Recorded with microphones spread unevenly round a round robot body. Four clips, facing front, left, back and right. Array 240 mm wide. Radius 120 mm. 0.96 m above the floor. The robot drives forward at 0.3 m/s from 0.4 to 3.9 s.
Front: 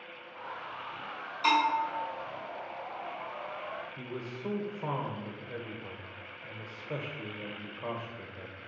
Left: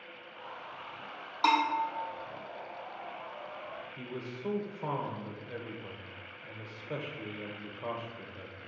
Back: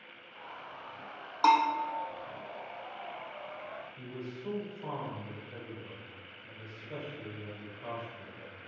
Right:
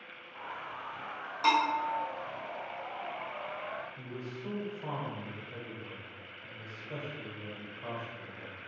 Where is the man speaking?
50° left, 0.7 m.